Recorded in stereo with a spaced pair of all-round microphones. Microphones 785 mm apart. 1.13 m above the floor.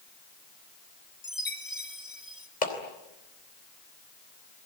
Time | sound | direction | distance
1.2 | a chime | 25° left (ahead or behind) | 1.8 m
2.6 | a clap | 65° left (ahead or behind) | 4 m